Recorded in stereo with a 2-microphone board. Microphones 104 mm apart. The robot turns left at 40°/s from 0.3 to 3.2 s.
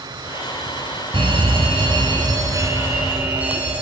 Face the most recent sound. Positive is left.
turn(degrees=-165)